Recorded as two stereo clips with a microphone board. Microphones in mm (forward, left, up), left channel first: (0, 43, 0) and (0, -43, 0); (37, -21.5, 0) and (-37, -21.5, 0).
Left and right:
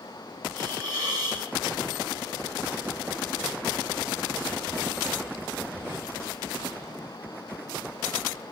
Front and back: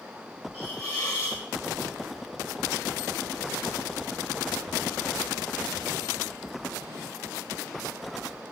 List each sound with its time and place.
0.5 s a hiss: 45° right, 4 m